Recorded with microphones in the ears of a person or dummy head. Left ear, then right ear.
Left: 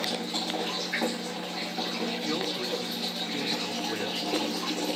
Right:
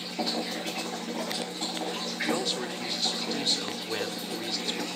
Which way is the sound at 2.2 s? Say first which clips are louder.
Right 1 dB; 30° right (ahead or behind).